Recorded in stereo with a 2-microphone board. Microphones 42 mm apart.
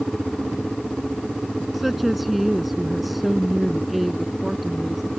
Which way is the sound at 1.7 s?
Centre (ahead or behind).